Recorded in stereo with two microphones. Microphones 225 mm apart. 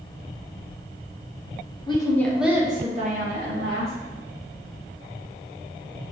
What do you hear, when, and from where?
1.9 s a woman speaking: 20° left (ahead or behind), 1.0 m; by 3.9 s 55° right (ahead or behind), 1.5 m